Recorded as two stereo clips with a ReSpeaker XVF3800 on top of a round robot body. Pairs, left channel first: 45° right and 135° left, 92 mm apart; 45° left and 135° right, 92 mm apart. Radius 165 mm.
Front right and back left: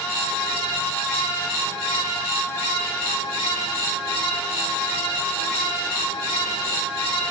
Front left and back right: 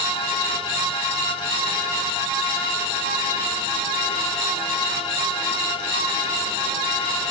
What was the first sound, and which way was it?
Only background noise.